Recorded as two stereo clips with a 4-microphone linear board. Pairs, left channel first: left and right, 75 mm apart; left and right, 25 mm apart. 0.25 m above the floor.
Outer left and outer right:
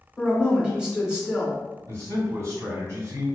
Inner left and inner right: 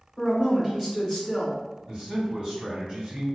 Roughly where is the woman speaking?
Centre.